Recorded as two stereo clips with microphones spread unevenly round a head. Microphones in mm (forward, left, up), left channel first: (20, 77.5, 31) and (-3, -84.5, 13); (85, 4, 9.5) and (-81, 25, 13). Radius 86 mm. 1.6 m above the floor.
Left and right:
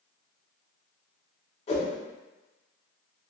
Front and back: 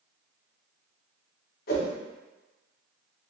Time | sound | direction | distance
1.7 | a whoosh | 25° left | 1.0 m